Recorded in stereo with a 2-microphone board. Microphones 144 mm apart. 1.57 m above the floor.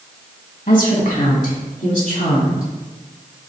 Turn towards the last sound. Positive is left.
turn(degrees=75)  # may be behind; listen again after turning